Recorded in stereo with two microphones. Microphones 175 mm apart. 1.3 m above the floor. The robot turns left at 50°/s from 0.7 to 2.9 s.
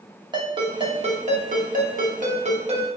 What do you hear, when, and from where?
0.3 s a ringtone: 35° right, 1.1 m; by 2.9 s 140° right, 1.1 m